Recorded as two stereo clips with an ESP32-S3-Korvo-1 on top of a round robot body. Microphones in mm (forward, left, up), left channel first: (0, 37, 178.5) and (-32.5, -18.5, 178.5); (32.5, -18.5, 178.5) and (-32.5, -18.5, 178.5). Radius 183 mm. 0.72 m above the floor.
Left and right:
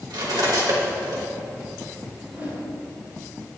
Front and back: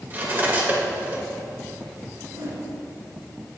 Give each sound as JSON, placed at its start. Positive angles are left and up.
{"t": 0.1, "sound": "cutlery clinking", "azimuth_deg": -120, "distance_m": 2.5}
{"t": 2.2, "sound": "a whoosh", "azimuth_deg": 175, "distance_m": 4.0}